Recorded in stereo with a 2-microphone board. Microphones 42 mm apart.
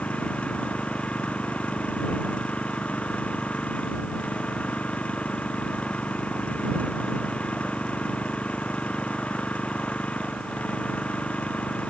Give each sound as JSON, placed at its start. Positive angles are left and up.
{"t": 0.0, "sound": "an engine running", "side_deg": 35}